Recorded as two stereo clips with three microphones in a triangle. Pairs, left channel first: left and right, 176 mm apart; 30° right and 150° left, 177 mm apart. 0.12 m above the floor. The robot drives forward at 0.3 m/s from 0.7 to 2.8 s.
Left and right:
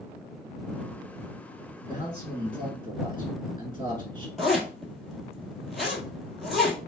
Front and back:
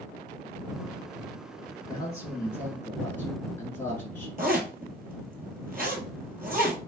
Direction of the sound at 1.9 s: 75° right.